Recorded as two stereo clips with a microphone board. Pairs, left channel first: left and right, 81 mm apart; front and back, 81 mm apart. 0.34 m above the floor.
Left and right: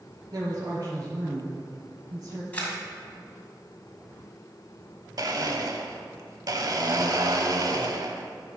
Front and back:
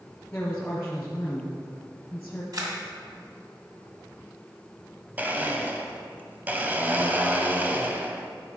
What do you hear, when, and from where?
0.3 s a woman speaking: 70° right, 3 m
2.5 s a camera shutter: 155° left, 2 m
5.2 s a blender: 115° right, 0.8 m